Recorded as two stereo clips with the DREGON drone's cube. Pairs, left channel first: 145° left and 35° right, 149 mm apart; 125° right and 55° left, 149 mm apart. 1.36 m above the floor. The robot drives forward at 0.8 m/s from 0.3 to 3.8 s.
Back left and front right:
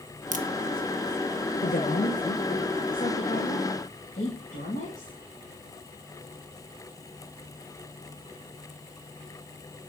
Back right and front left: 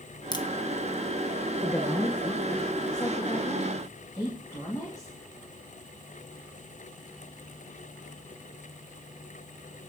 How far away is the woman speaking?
About 0.8 m.